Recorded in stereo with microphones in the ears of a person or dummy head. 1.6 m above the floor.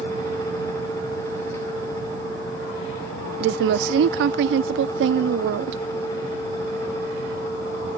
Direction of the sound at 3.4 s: 70° right (ahead or behind).